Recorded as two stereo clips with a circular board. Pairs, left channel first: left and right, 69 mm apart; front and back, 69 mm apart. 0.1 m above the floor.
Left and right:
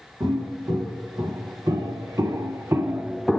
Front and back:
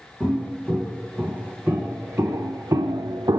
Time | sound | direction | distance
0.2 | footsteps | 110° right | 2 m